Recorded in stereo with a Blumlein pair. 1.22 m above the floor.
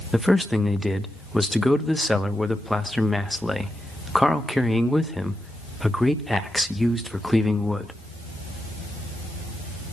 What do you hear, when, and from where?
0.1 s a man speaking: straight ahead, 1.2 m